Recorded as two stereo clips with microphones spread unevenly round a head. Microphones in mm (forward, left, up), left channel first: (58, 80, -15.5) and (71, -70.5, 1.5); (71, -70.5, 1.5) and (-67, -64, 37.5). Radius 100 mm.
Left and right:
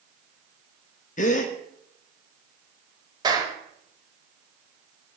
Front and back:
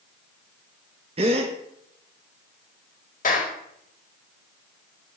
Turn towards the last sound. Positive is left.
turn(degrees=-25)